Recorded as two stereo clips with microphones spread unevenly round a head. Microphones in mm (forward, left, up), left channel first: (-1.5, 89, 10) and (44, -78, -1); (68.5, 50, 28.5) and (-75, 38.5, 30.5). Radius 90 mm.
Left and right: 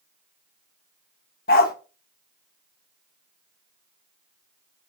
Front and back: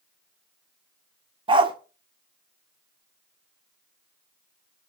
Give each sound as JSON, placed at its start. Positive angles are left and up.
{"t": 1.5, "sound": "a dog barking", "azimuth_deg": 135, "distance_m": 1.2}